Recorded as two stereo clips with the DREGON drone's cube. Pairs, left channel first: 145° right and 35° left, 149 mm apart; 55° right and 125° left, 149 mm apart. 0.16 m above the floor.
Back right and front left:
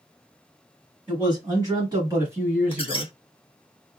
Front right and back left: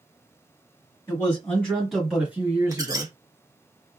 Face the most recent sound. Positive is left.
turn(degrees=180)